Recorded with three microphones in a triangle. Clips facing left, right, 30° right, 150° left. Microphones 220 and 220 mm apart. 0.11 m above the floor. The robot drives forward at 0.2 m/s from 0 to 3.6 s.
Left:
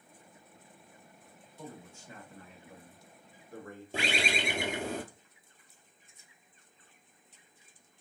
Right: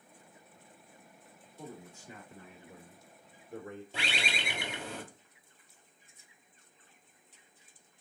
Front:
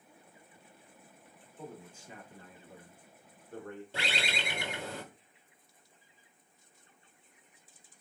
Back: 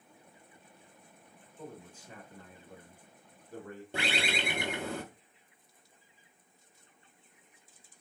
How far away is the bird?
About 0.7 m.